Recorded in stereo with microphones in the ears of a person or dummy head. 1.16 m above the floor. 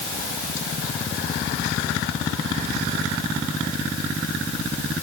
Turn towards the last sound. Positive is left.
No sound to turn to.